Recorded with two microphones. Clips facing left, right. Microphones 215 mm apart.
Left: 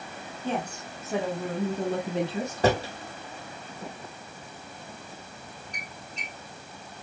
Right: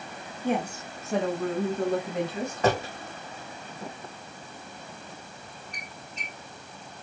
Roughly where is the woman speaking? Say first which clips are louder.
Right 4 dB; centre.